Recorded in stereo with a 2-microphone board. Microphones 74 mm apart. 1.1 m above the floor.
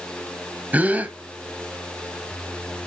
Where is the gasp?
20° right (ahead or behind), 1.1 m.